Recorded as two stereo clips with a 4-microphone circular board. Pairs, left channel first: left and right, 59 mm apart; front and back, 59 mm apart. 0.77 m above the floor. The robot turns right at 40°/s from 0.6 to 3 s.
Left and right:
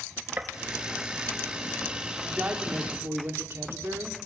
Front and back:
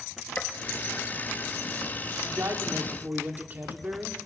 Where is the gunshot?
45° right, 1.0 m.